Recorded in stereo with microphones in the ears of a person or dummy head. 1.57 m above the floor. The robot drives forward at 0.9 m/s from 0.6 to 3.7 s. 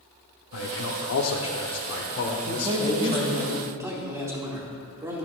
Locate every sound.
0.5 s a man speaking: 65° left (ahead or behind), 1.2 m; by 3.5 s 30° left (ahead or behind), 2.5 m
2.5 s a man speaking: 30° right (ahead or behind), 1.2 m; by 5.3 s 15° right (ahead or behind), 2 m